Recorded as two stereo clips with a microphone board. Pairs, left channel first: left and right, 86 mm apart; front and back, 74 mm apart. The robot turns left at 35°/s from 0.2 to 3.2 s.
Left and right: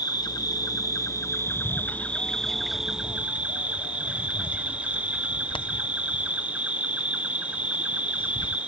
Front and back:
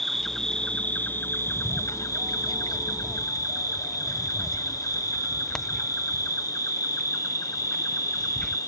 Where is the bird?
140° left; by 8.6 s 80° left.